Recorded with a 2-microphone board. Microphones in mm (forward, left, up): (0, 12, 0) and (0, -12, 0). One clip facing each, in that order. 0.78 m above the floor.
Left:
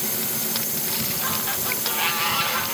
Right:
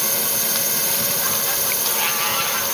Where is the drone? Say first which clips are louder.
Right 5 dB; 65° right (ahead or behind).